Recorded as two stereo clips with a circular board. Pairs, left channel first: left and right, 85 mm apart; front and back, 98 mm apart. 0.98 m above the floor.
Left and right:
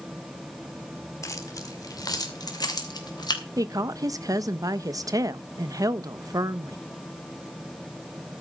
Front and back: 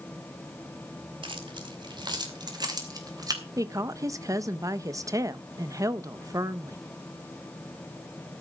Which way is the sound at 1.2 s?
145° left.